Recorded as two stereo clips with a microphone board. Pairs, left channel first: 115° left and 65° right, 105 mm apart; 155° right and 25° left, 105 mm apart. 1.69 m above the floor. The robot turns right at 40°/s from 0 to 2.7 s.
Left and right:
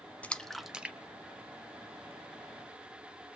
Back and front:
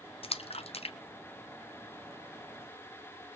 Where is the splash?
170° right, 0.7 m; by 2.1 s 95° right, 0.7 m.